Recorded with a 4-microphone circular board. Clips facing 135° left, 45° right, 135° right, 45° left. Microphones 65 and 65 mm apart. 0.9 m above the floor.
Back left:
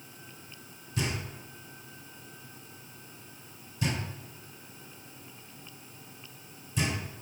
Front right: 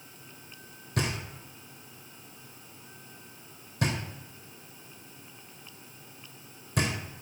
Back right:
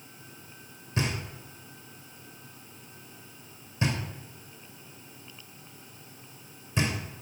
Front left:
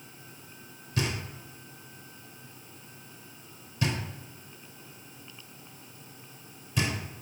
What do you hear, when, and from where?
1.0 s knocking: 70° right, 2.5 m